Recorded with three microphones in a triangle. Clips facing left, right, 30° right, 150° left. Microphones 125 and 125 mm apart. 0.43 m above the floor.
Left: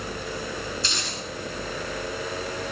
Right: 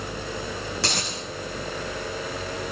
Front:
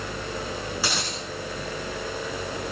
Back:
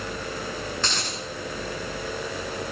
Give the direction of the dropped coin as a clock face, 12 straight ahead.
4 o'clock.